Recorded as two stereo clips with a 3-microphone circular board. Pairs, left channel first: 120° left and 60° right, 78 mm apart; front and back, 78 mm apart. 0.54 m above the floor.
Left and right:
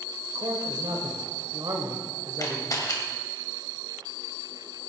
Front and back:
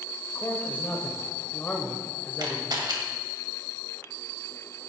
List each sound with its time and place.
0.3 s a man speaking: 65° right, 2 m
2.4 s a camera shutter: 160° left, 2.0 m